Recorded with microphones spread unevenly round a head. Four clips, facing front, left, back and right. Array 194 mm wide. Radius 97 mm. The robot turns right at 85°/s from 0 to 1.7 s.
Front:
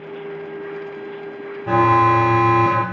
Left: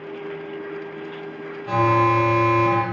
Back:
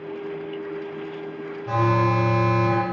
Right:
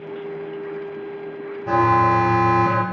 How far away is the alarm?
About 0.8 m.